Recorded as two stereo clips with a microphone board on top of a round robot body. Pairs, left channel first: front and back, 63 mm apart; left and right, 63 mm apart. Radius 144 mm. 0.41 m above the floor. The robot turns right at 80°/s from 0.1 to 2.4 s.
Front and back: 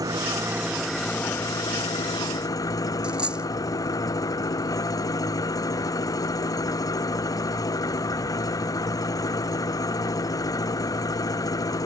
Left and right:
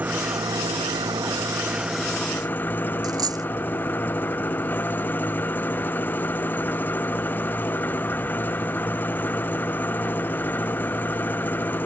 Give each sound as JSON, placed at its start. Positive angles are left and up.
{"t": 0.0, "sound": "an engine running", "azimuth_deg": -155}
{"t": 3.0, "sound": "a dropped coin", "azimuth_deg": -105}